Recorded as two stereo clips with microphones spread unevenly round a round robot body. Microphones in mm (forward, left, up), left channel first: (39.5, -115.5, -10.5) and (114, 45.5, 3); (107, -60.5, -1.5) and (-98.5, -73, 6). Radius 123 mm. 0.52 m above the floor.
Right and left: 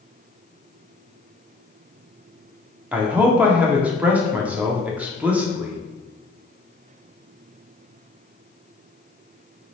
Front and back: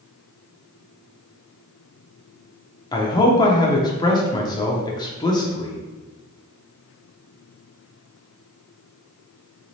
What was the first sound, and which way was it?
A man speaking, 15° right.